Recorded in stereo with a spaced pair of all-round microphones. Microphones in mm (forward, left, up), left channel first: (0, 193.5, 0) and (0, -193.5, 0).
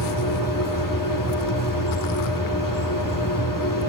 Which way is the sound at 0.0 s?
55° left (ahead or behind).